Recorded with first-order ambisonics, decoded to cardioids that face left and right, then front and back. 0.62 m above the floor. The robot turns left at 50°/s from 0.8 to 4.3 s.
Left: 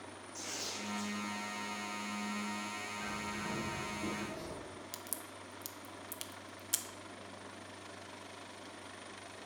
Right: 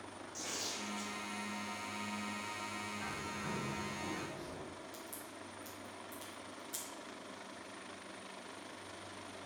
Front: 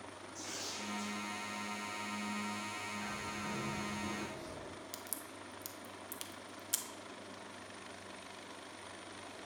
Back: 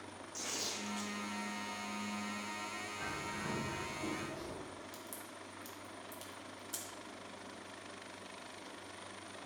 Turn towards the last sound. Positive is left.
turn(degrees=55)